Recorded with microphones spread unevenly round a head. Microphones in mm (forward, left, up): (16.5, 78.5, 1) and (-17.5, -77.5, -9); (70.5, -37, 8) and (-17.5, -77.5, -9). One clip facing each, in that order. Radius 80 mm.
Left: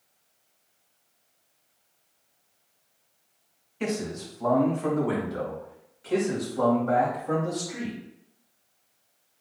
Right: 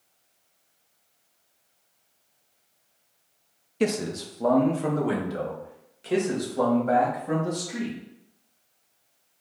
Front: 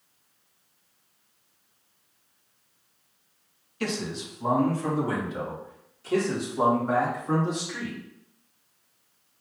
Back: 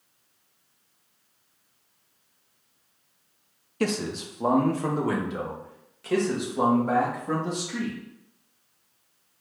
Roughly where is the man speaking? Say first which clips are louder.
Right 4 dB, back 4 dB; behind right.